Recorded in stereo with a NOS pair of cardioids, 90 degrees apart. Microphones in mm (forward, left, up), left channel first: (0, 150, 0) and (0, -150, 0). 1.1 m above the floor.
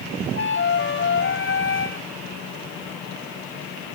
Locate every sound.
0.3 s a flute: 40° left